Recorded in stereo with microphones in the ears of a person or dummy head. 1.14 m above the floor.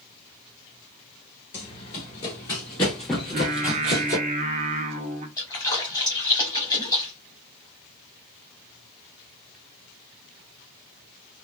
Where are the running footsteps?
35° left (ahead or behind), 1.5 m; by 4.2 s 20° right (ahead or behind), 1.2 m.